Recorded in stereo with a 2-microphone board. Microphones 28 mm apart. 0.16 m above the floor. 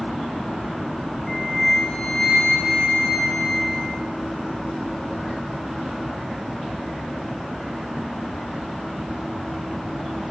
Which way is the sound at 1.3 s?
15° left (ahead or behind).